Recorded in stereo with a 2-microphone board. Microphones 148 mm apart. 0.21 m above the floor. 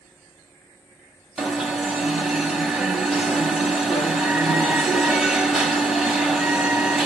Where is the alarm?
5° right (ahead or behind), 1.2 m.